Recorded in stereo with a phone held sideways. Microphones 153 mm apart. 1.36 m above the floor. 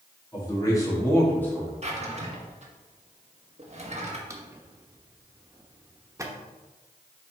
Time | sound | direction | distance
0.3 | a man speaking | 30° left (ahead or behind) | 2.5 m
1.8 | a drawer | 45° right (ahead or behind) | 1.1 m
4.3 | a drawer | 20° right (ahead or behind) | 0.8 m